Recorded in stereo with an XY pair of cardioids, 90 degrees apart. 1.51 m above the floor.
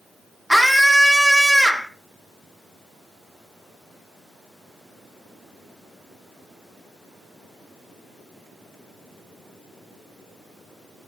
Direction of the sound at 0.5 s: Straight ahead.